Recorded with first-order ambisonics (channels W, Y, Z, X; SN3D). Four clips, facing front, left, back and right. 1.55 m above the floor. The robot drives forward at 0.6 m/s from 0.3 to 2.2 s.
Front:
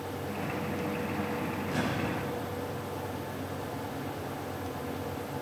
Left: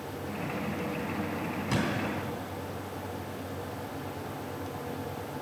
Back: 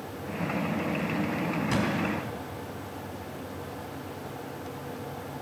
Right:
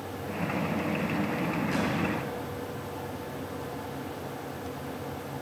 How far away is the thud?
About 3.5 m.